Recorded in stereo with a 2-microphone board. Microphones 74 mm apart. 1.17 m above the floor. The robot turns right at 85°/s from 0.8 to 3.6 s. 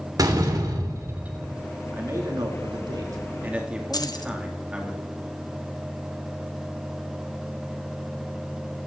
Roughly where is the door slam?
Ahead right.